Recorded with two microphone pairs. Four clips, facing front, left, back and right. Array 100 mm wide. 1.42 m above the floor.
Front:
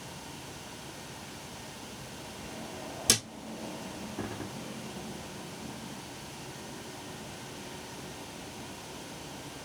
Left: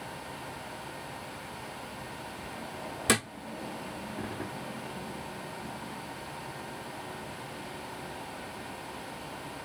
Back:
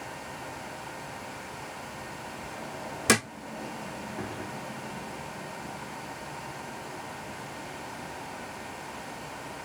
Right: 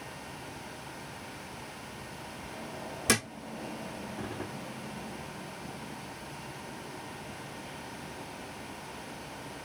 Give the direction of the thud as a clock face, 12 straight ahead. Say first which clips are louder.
Left 1 dB, back 10 dB; 7 o'clock.